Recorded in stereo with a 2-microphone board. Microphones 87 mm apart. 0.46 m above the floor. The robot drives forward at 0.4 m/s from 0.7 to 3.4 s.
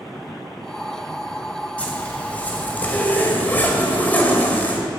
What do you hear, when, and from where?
1.8 s a zipper: 15° left (ahead or behind), 3 m; by 4.8 s 20° left (ahead or behind), 2 m